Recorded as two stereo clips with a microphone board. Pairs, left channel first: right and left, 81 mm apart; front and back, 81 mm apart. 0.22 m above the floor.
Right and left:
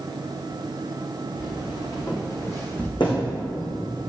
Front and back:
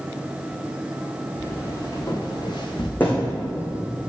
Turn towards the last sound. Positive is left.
turn(degrees=-70)